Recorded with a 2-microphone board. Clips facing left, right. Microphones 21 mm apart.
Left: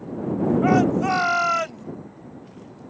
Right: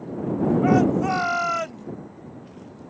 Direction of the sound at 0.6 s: 20° left (ahead or behind).